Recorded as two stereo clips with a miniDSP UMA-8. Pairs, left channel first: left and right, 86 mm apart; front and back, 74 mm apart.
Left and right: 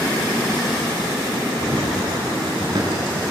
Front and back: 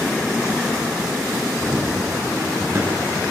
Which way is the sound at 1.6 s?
115° right.